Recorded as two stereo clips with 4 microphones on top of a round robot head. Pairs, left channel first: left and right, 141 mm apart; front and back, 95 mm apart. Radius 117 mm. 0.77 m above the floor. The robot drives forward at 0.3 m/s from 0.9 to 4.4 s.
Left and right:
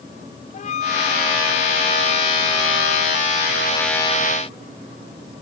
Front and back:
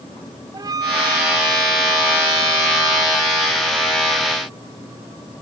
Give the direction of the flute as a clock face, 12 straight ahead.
8 o'clock.